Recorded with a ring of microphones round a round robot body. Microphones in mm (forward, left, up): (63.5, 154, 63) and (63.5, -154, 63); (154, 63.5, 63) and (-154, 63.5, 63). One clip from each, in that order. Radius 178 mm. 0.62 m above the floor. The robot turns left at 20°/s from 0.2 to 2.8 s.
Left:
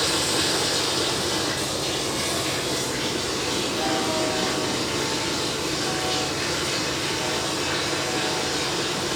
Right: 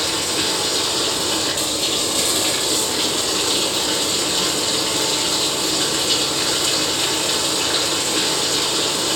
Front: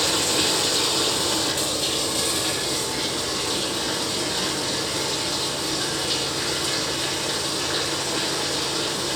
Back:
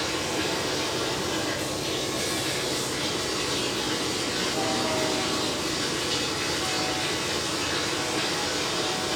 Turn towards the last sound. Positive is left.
turn(degrees=-70)